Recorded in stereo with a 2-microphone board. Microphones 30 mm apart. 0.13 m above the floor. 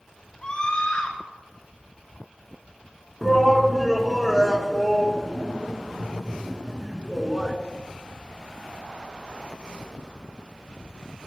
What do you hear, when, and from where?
0.4 s a scream: 25° left (ahead or behind), 1.6 m
3.2 s a shout: centre (ahead or behind), 1.1 m